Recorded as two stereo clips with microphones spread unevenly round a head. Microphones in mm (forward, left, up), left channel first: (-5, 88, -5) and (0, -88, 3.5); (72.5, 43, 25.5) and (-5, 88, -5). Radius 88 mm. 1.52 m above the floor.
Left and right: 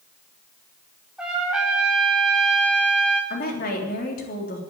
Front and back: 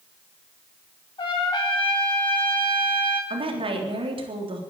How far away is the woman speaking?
About 3.5 m.